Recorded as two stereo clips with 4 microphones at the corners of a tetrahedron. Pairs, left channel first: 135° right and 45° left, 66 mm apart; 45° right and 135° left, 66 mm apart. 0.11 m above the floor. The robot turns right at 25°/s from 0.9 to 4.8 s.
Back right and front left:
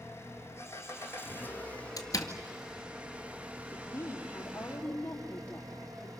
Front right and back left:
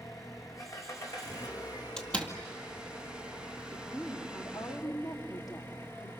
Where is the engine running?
85° right, 2.5 m; by 6.2 s 15° left, 2.5 m.